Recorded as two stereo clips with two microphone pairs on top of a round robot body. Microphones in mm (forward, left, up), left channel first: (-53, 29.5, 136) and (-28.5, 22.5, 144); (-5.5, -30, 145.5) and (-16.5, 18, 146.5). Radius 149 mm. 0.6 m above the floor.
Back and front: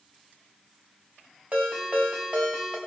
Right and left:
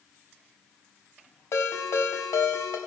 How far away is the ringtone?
About 2 m.